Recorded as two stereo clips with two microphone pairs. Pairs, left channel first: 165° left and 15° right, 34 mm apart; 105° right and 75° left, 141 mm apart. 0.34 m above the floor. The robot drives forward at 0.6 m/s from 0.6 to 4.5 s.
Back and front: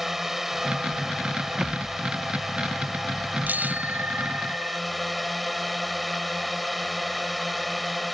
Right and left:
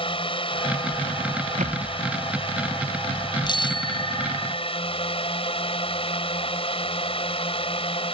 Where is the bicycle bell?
50° right.